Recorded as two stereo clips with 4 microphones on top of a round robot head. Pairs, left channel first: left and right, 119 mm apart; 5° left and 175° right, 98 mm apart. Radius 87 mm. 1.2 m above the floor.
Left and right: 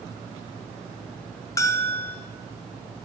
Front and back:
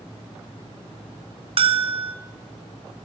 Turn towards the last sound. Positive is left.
turn(degrees=160)